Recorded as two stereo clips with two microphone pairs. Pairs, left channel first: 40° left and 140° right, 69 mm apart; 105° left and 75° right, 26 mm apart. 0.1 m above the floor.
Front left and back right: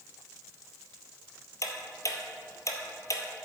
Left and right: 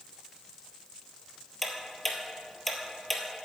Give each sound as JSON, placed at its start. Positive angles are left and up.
{"t": 1.6, "sound": "ticking", "azimuth_deg": 20, "distance_m": 1.3}